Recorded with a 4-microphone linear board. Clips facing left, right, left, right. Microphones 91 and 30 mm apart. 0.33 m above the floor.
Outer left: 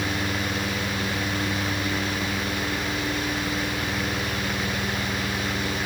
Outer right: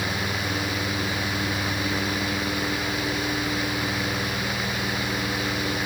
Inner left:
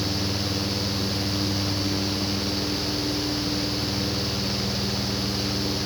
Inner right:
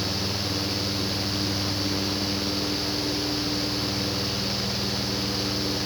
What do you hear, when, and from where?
Only background noise.